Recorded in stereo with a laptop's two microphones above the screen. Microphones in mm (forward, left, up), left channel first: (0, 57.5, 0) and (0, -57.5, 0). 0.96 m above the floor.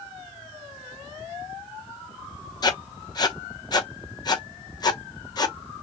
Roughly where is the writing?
Left.